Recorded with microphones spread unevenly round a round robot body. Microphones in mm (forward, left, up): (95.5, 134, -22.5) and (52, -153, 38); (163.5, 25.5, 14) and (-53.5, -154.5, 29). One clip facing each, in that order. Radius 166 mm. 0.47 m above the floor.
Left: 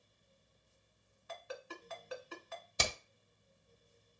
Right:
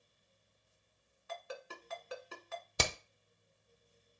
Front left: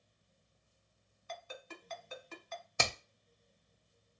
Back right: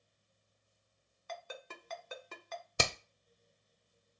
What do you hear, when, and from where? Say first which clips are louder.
1.3 s a ringtone: even, back right 1 dB; 110° right, 1.0 m
2.8 s hammering: right 3 dB, back right 2 dB; 100° right, 0.6 m